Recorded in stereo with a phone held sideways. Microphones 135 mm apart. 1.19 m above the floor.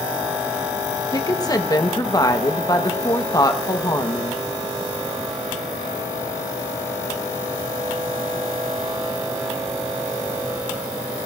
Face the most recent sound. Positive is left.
turn(degrees=30)  # may be behind; listen again after turning